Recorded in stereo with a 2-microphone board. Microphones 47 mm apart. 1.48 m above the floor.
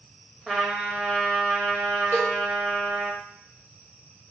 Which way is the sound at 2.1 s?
75° left (ahead or behind).